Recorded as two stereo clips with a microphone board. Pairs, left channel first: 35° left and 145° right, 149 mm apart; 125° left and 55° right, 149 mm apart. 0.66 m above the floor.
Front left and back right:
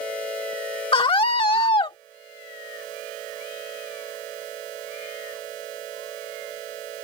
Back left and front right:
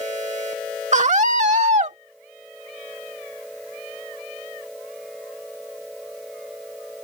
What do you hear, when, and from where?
0.9 s a scream: 20° right